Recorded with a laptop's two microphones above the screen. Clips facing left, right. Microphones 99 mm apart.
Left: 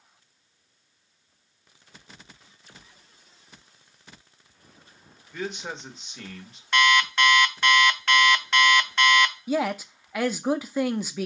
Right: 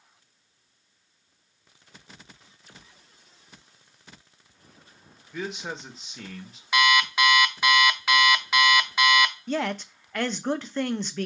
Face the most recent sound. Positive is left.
turn(degrees=10)  # may be behind; listen again after turning